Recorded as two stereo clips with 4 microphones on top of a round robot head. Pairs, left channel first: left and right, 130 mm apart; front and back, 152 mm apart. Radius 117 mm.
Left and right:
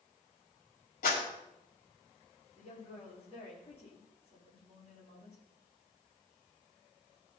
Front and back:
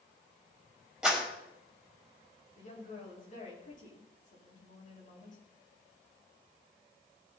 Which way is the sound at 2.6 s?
30° left.